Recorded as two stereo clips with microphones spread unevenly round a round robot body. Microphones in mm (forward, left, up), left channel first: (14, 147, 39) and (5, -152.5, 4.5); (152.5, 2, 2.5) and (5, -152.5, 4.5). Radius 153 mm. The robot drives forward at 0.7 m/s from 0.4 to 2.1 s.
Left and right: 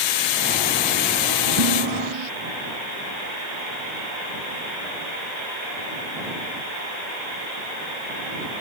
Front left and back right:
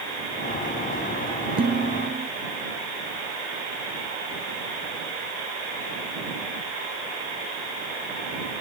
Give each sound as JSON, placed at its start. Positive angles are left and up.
{"t": 1.6, "sound": "dishes clattering", "azimuth_deg": -70}